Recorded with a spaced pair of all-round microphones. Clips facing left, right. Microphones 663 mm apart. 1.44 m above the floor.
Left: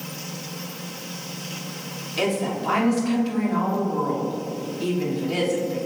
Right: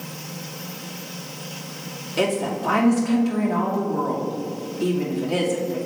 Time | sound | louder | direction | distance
2.2 | a woman speaking | right 1 dB | 70° right (ahead or behind) | 3.5 m